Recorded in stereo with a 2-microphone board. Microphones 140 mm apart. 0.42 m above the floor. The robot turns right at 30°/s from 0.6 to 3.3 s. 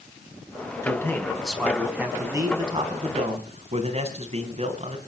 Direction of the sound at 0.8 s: 160° left.